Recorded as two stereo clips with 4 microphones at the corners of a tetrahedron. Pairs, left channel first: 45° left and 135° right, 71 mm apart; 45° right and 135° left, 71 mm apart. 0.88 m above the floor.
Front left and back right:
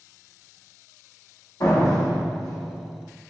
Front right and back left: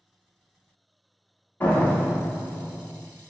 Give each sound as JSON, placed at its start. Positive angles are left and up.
{"t": 1.6, "sound": "a door slam", "azimuth_deg": 20, "distance_m": 1.0}